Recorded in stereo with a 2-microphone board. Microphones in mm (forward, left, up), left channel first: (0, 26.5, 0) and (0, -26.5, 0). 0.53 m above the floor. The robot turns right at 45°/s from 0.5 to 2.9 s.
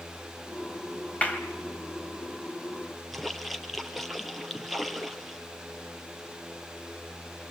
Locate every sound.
1.2 s a clap: 25° left (ahead or behind), 3 m; by 1.4 s 35° left (ahead or behind), 3 m
3.1 s a splash: centre (ahead or behind), 2.5 m